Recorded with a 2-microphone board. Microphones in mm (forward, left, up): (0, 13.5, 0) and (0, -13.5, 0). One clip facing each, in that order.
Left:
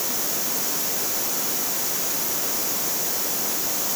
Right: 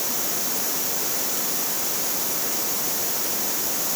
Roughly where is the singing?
No singing in this recording.